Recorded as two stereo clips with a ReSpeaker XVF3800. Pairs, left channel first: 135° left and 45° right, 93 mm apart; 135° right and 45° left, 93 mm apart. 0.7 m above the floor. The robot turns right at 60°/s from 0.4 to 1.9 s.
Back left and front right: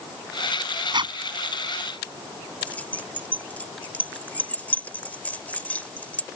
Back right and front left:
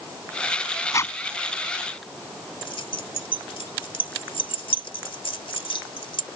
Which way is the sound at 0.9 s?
80° right.